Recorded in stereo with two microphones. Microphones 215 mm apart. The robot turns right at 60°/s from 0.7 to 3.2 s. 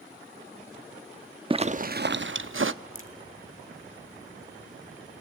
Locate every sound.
1.5 s a zipper: 155° right, 0.8 m; by 2.7 s 80° right, 0.8 m
3.0 s a crack: 75° left (ahead or behind), 2 m; by 3.1 s 80° left, 2 m